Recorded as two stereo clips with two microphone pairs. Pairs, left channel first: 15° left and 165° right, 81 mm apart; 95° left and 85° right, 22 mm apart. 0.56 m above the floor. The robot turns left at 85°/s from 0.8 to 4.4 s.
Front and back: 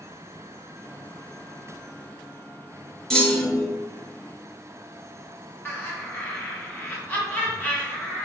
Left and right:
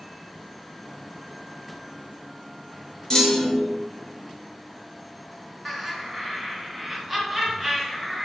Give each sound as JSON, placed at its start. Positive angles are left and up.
{"t": 3.1, "sound": "a clunk", "azimuth_deg": 100, "distance_m": 0.6}
{"t": 5.7, "sound": "laughter", "azimuth_deg": 5, "distance_m": 1.0}